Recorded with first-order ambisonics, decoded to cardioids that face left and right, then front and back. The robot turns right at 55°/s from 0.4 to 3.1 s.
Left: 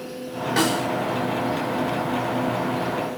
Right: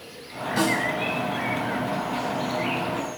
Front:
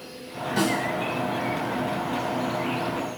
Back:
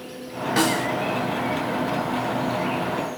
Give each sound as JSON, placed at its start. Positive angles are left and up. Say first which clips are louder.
{"t": 0.6, "sound": "a snare drum", "louder": "left 1 dB, back 3 dB", "azimuth_deg": 145, "distance_m": 0.8}